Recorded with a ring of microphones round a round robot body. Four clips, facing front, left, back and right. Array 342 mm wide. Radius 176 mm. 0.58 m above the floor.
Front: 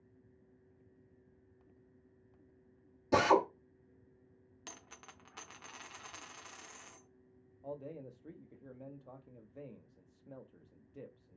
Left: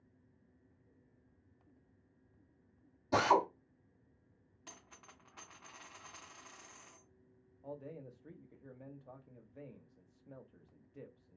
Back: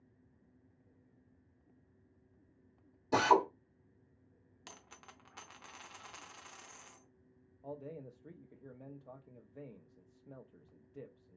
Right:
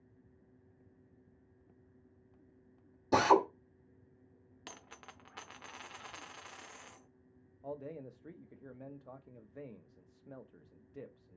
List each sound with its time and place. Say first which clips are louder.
3.1 s a drill: right 3 dB, even; 65° right, 1.4 m
4.7 s a dropped coin: right 5 dB, front 1 dB; 85° right, 0.6 m
7.6 s a man speaking: right 4 dB, front 1 dB; 85° right, 0.6 m